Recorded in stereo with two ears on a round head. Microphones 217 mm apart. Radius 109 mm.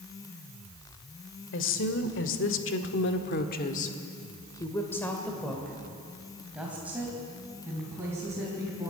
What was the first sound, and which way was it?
A woman speaking, 55° left (ahead or behind).